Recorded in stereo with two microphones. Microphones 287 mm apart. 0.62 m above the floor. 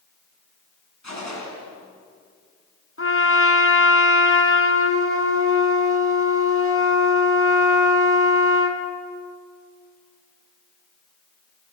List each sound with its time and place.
1.0 s a gunshot: 75° left (ahead or behind), 5.5 m
3.0 s a trumpet: 50° left (ahead or behind), 2 m